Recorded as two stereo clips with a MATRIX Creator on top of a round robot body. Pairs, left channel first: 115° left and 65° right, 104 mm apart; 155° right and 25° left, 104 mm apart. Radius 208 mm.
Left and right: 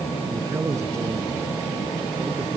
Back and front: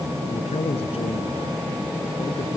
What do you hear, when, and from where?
0.3 s a man speaking: 130° right